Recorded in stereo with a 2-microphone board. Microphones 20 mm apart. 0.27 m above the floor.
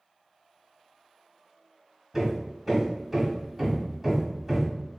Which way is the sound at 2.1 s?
15° right (ahead or behind).